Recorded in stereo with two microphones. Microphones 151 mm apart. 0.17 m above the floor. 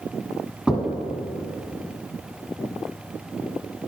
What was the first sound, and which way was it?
Knocking, 5° right (ahead or behind).